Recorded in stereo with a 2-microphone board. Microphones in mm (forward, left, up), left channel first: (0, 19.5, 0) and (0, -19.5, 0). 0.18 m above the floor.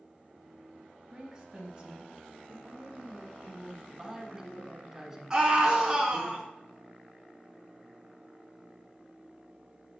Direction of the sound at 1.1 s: 15° right (ahead or behind).